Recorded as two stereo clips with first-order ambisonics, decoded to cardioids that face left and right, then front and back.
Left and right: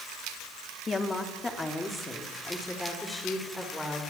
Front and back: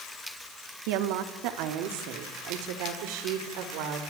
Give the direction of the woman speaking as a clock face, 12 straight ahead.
6 o'clock.